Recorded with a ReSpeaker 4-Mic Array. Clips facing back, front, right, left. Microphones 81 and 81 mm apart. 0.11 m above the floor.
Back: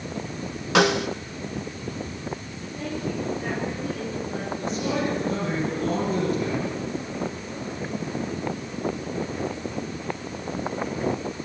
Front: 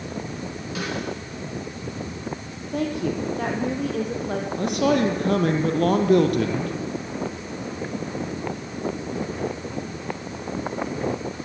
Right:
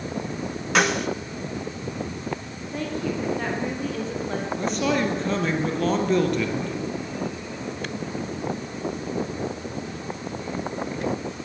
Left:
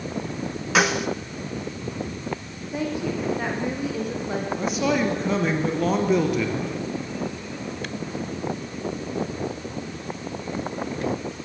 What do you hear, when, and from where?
0.8 s a snare drum: 175° left, 1.0 m
2.7 s a woman speaking: 10° left, 5 m
4.6 s a man speaking: 5° left, 3 m